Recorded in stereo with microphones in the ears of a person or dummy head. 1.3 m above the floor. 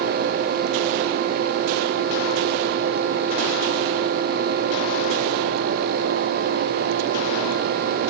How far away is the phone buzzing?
No phone buzzing in this recording.